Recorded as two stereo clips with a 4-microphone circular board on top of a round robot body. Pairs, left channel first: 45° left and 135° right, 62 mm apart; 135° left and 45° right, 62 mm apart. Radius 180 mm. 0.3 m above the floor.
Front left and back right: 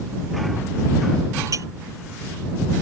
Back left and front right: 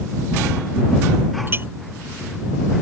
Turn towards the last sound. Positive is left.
turn(degrees=-100)